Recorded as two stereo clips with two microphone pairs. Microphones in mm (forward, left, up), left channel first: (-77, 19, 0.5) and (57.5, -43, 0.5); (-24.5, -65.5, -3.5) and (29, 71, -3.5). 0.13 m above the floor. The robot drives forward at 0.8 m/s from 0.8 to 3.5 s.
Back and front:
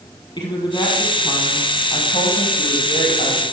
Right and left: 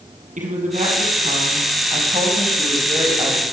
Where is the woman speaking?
95° left, 4 m; by 3.4 s 125° left, 4.5 m.